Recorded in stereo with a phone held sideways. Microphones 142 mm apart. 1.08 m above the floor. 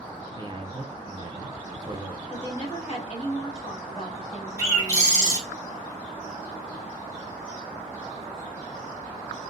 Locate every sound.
0.3 s a man speaking: 35° right (ahead or behind), 0.6 m
2.3 s a woman speaking: 45° left (ahead or behind), 1.4 m
4.6 s a bird: 25° left (ahead or behind), 1.6 m